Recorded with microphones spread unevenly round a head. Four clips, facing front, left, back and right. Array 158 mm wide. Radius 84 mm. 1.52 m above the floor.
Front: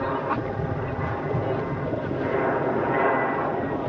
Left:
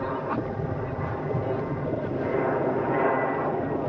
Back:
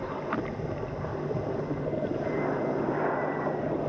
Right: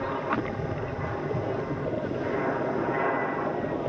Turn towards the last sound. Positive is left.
turn(degrees=45)